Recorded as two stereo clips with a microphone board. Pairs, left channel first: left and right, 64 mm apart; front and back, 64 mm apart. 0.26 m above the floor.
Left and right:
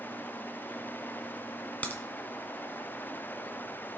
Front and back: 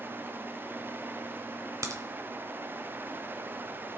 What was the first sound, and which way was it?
A crack, 155° left.